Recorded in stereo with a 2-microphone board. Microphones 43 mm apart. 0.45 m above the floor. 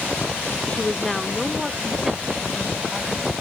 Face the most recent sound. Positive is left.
turn(degrees=-15)  # may be behind; listen again after turning